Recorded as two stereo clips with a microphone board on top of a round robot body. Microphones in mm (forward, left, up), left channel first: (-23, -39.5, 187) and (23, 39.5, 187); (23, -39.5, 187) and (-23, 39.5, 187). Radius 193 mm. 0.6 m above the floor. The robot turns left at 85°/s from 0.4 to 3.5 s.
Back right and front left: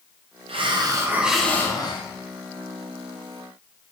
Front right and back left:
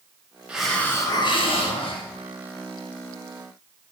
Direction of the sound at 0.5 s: 45° left.